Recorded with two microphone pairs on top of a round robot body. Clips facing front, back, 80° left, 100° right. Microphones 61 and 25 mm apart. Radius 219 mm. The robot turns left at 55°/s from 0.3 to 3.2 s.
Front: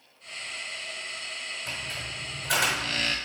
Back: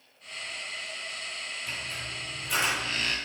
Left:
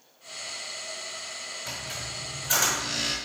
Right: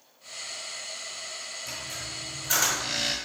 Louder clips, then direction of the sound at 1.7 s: Front 1 dB, left 1 dB; 30° left.